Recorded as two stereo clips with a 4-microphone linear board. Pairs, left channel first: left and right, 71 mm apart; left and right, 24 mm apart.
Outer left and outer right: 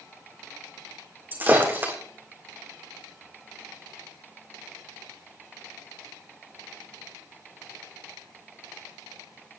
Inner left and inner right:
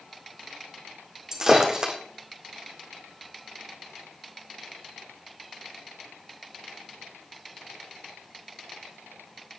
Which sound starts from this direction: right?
Breaking glass, at 1.3 s.